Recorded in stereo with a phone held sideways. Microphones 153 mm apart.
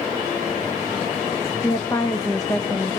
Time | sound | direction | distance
1.6 | a woman speaking | 20° left (ahead or behind) | 1.6 m